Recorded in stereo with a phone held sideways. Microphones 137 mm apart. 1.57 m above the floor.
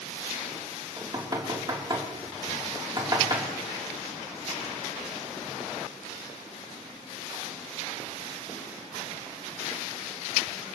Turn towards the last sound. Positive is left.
turn(degrees=-35)  # may be behind; listen again after turning